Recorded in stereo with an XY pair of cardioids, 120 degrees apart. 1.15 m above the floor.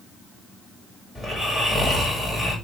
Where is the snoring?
10° left, 4 m.